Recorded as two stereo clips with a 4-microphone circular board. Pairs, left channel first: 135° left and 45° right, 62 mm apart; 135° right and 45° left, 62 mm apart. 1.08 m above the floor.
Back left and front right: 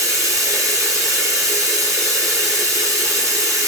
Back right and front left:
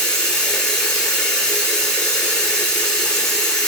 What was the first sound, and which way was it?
Running water, 60° right.